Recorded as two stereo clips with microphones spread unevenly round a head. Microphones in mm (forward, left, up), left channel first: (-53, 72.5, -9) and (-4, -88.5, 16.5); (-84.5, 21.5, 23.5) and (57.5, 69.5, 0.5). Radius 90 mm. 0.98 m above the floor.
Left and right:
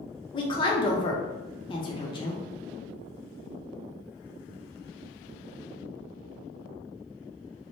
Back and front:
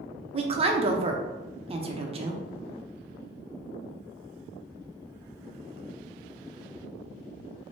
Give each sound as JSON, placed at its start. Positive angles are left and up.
{"t": 0.3, "sound": "a woman speaking", "azimuth_deg": 55, "distance_m": 0.5}